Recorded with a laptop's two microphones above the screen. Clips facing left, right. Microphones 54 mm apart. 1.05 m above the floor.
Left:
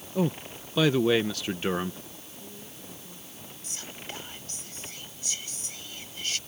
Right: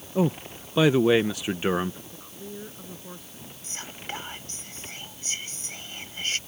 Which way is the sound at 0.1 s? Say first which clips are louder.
Right 3 dB; 15° right (ahead or behind).